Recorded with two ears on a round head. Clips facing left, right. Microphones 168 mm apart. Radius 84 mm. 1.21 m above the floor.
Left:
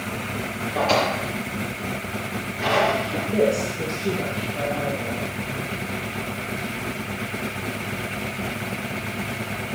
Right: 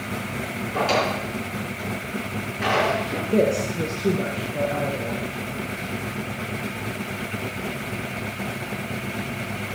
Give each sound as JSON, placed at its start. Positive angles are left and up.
{"t": 0.7, "sound": "a drawer", "side_deg": -80, "distance_m": 4.0}
{"t": 3.3, "sound": "a woman speaking", "side_deg": -40, "distance_m": 1.1}